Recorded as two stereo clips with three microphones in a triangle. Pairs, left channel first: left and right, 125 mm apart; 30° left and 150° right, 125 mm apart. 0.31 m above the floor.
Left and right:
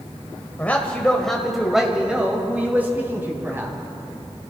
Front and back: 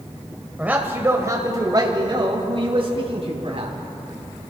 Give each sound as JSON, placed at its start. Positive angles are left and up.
{"t": 0.6, "sound": "a man speaking", "azimuth_deg": 145, "distance_m": 1.3}